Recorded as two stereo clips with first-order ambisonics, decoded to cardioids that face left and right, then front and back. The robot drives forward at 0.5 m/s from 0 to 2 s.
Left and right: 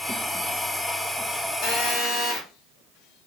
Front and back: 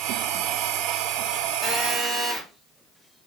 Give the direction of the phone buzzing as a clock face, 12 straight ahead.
9 o'clock.